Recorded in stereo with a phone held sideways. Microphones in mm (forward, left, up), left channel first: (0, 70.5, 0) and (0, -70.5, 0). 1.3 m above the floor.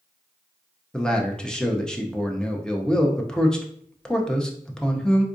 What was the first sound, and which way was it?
A man speaking, 5° left (ahead or behind).